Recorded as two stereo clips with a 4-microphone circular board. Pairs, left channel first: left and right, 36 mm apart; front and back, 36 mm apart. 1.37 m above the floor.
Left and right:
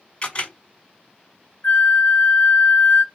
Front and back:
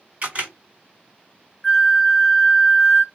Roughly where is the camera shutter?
Behind left.